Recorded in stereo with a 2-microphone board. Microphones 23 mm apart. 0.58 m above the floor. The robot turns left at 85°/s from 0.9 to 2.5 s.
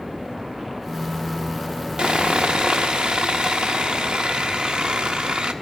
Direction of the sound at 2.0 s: 65° right.